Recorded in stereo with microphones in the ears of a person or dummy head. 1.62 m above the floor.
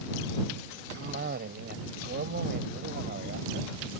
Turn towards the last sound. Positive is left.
turn(degrees=-60)  # may be behind; listen again after turning